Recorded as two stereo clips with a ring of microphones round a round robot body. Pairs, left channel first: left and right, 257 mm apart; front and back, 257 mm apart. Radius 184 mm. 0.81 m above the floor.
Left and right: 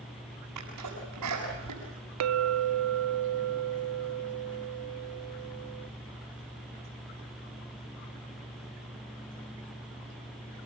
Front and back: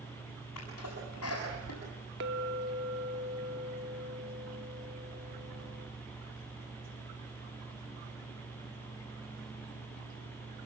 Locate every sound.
0.6 s a sneeze: 50° right, 8 m
2.2 s a clink: 120° right, 0.9 m